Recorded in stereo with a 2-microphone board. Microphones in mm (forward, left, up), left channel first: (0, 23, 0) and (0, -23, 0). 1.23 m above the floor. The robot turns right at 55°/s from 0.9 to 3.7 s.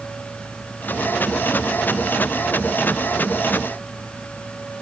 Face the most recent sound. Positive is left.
No sound to turn to.